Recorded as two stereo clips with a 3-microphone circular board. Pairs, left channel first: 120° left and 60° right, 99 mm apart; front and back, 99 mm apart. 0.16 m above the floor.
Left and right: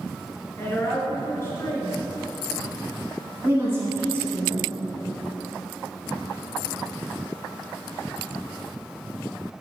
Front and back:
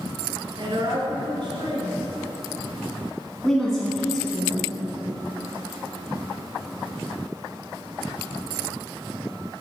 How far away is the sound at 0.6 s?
About 2 m.